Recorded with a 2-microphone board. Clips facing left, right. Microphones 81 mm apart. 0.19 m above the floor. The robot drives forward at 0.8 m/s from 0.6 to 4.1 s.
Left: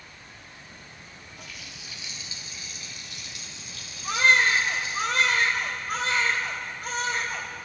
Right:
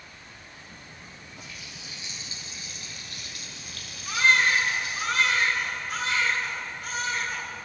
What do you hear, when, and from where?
1.4 s a running tap: 30° right (ahead or behind), 3 m; by 5.0 s 60° right (ahead or behind), 1.5 m
4.0 s a baby crying: 40° left (ahead or behind), 4 m